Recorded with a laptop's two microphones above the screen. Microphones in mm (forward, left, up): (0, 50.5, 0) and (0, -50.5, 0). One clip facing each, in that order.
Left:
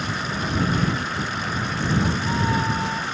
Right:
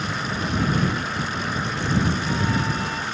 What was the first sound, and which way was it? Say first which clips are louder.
A cat meowing: even; 40° left (ahead or behind).